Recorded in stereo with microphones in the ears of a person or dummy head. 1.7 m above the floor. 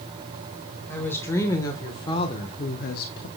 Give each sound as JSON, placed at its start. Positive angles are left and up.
{"t": 0.9, "sound": "a woman speaking", "side_deg": 10, "distance_m": 1.9}